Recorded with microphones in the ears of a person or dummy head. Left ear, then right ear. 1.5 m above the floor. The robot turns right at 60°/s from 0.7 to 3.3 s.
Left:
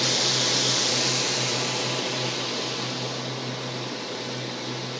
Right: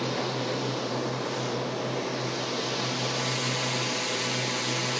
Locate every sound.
0.0 s a drone: 50° left; by 5.0 s 150° right